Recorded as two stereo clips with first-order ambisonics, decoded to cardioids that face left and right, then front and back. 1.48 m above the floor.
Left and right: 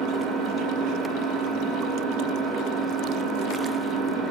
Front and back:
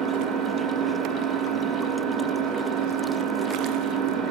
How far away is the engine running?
About 1.5 m.